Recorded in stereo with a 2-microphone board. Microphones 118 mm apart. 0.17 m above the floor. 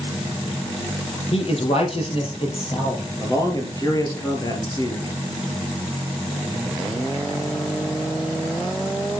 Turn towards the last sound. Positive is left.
turn(degrees=30)  # may be behind; listen again after turning